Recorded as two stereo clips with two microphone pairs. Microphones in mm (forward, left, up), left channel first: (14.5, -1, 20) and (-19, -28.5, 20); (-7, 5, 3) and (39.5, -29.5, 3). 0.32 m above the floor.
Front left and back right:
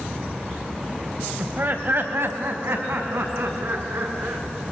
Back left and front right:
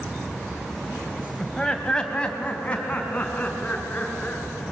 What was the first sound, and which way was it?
Laughter, 140° right.